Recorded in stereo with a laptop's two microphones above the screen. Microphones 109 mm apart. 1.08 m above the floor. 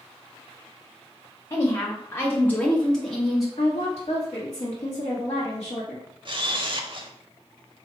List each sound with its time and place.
1.5 s a woman speaking: 25° left (ahead or behind), 0.8 m; by 3.5 s centre (ahead or behind), 0.8 m
3.6 s a woman speaking: 60° left (ahead or behind), 1.2 m
6.2 s a camera shutter: 50° right (ahead or behind), 0.6 m